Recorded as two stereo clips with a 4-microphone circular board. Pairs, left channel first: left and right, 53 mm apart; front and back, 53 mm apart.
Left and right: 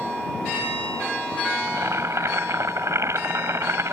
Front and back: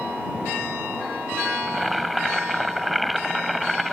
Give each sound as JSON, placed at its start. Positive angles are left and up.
{"t": 1.7, "sound": "boiling", "azimuth_deg": -90}